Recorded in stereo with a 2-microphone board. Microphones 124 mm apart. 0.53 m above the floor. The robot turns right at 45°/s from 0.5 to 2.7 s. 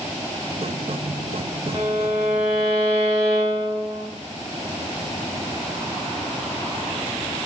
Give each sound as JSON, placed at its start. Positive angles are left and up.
{"t": 1.7, "sound": "a violin", "azimuth_deg": -40, "distance_m": 1.5}